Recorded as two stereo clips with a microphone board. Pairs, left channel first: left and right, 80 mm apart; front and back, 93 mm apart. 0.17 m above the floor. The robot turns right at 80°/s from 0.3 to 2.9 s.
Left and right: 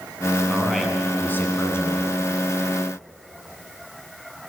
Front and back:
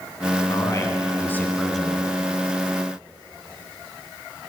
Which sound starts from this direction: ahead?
A man speaking, at 0.5 s.